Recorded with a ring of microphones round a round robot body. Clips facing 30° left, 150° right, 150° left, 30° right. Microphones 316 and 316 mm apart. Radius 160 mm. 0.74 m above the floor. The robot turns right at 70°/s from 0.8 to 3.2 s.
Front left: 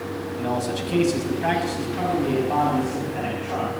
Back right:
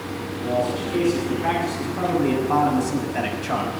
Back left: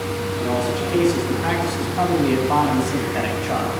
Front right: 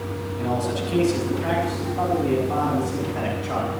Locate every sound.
0.4 s a man speaking: 20° left, 5.5 m; by 3.7 s 175° right, 5.5 m